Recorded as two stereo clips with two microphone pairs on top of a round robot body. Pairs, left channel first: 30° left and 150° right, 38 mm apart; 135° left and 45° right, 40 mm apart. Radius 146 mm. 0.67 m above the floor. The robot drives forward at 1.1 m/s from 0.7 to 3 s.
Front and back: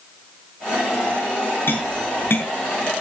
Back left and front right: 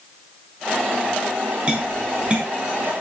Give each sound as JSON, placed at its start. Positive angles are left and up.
{"t": 1.7, "sound": "tapping", "azimuth_deg": 15, "distance_m": 7.5}